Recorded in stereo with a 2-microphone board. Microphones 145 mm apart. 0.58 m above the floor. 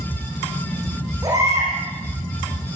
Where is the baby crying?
25° right (ahead or behind), 9 m.